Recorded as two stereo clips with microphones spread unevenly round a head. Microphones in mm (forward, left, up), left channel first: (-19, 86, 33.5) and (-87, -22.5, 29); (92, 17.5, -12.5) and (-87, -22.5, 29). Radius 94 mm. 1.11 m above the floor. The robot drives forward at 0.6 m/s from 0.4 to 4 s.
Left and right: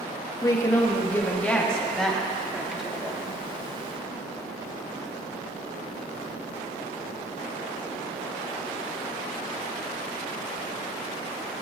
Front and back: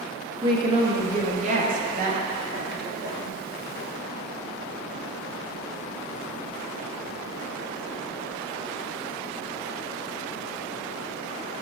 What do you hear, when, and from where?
0.4 s a woman speaking: 125° left, 1.5 m; by 3.3 s 155° left, 3 m